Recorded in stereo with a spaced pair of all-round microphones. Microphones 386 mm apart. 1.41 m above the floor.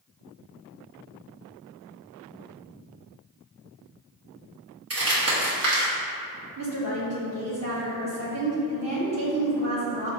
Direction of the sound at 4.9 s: 40° right (ahead or behind).